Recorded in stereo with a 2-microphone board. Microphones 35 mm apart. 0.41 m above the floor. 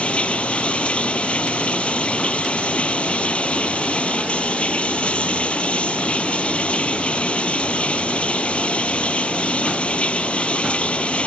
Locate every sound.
0.0 s running water: 40° left (ahead or behind)